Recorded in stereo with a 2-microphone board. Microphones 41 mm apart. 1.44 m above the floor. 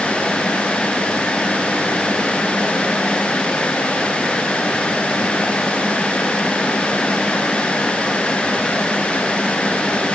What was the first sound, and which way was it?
Only background noise.